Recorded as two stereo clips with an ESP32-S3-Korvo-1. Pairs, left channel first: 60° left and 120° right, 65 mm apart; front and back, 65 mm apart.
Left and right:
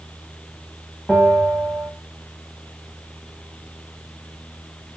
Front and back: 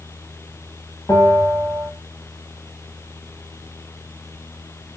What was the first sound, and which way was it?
A bell, 15° right.